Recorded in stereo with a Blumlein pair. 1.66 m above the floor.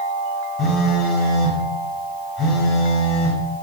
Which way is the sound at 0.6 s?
25° left.